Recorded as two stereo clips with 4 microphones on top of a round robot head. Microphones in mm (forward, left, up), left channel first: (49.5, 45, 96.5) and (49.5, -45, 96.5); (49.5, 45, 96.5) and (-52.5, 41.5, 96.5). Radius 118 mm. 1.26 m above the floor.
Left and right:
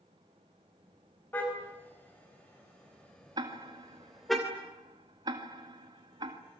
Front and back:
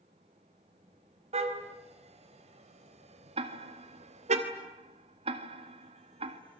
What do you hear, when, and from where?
1.3 s a car horn: 165° left, 4.5 m; by 4.4 s straight behind, 3 m
3.4 s ticking: 140° right, 2 m